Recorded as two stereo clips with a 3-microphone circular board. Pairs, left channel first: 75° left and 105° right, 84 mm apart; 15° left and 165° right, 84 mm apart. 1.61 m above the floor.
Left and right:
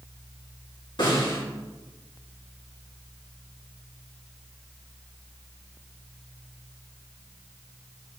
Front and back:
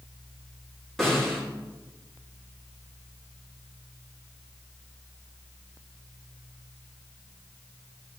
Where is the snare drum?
105° left, 4.5 m.